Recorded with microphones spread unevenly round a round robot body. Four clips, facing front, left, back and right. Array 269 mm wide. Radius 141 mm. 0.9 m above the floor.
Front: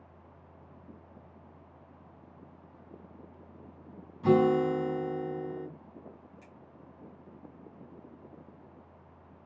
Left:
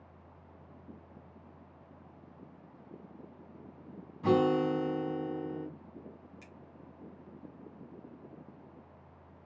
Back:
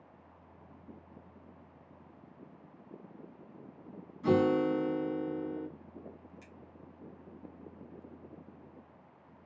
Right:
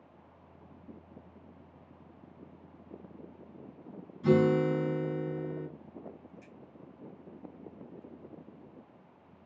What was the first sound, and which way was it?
A guitar, 45° left.